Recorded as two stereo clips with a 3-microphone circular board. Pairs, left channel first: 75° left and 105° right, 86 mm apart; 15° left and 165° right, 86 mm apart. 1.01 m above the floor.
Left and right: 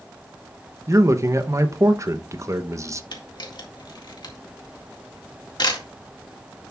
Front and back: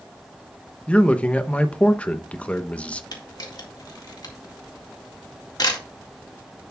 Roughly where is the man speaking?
Ahead right.